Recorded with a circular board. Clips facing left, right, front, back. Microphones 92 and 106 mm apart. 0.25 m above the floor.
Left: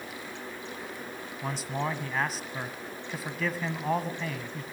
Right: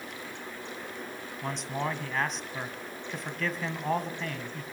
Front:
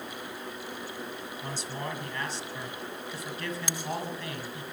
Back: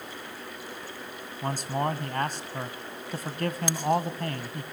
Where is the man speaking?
175° left, 1.9 m.